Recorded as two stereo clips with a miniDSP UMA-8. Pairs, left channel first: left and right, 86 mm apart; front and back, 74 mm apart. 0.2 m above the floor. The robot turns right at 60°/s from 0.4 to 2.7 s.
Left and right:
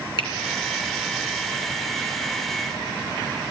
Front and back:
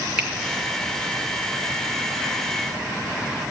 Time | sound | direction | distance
0.2 | a finger snap | 105° left | 2.5 m